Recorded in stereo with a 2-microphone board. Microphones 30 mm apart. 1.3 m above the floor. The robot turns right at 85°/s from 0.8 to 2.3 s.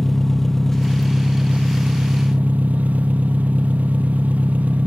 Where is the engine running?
170° left, 1.0 m; by 4.9 s 65° right, 1.0 m.